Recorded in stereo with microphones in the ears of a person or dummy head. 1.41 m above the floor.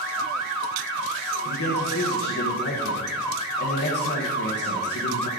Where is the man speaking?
55° left (ahead or behind), 1.1 m.